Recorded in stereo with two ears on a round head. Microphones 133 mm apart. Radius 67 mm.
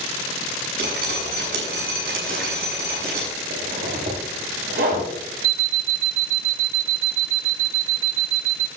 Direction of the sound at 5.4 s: 80° right.